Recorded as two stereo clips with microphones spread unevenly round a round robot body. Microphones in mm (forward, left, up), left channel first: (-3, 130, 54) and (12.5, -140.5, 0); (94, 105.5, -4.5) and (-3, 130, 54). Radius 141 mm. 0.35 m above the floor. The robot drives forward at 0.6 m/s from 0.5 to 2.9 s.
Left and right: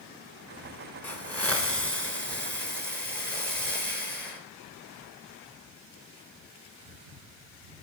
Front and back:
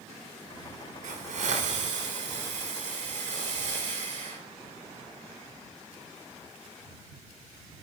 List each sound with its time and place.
1.0 s a hiss: straight behind, 1.4 m